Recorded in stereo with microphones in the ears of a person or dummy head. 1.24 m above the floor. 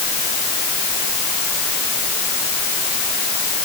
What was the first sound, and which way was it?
Only background noise.